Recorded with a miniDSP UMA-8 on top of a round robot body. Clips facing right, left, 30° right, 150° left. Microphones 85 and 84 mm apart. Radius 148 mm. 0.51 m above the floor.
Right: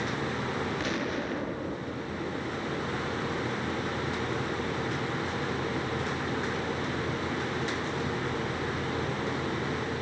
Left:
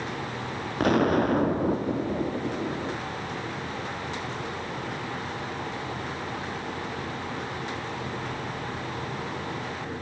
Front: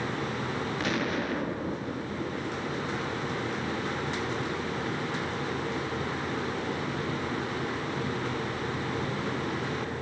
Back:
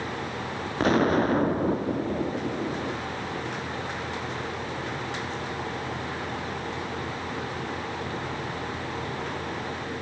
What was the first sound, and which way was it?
An explosion, 110° left.